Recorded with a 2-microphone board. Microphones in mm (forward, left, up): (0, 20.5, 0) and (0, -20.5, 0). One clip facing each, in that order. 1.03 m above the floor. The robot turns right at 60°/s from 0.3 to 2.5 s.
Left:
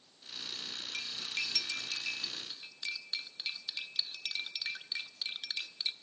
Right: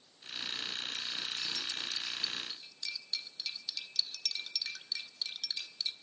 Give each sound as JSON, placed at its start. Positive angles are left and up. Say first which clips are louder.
{"t": 0.9, "sound": "cutlery clinking", "louder": "left 1 dB", "side_deg": 55, "distance_m": 0.9}